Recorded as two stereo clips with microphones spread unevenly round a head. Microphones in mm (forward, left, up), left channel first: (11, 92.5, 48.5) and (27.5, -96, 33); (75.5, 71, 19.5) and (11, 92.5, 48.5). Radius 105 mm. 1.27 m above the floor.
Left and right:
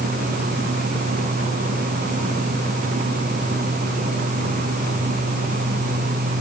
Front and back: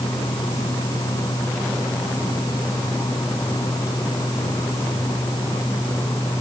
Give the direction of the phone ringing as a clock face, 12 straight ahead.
No phone ringing in this recording.